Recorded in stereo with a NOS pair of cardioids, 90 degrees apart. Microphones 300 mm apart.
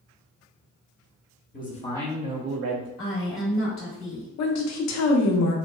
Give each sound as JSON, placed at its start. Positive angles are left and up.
{"t": 1.5, "sound": "a man speaking", "azimuth_deg": 30, "distance_m": 0.9}
{"t": 3.0, "sound": "a woman speaking", "azimuth_deg": 35, "distance_m": 1.0}
{"t": 4.4, "sound": "a woman speaking", "azimuth_deg": 65, "distance_m": 0.6}